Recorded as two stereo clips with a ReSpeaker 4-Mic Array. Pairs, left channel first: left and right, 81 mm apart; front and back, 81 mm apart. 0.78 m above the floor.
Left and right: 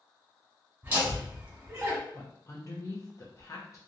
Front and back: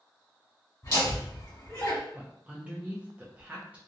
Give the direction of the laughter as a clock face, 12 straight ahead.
1 o'clock.